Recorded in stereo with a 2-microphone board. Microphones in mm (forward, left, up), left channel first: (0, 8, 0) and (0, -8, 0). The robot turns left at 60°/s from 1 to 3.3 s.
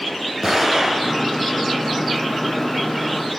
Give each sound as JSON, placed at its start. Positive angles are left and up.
{"t": 0.4, "sound": "an explosion", "side_deg": -25, "distance_m": 3.5}